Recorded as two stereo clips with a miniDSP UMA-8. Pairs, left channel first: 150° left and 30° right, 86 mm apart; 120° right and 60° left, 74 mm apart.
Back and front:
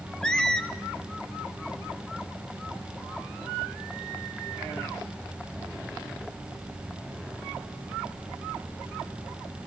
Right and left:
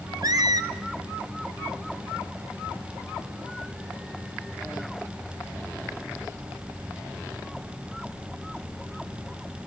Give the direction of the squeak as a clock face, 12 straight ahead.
10 o'clock.